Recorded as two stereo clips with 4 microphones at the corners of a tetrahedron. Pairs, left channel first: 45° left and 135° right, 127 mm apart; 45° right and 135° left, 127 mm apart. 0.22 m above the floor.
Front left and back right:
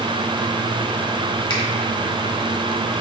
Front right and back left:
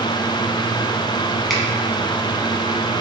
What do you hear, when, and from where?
1.5 s a finger snap: 45° left, 1.0 m